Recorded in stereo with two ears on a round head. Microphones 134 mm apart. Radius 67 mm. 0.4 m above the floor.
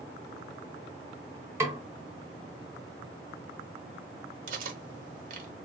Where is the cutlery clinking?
60° right (ahead or behind), 0.9 m.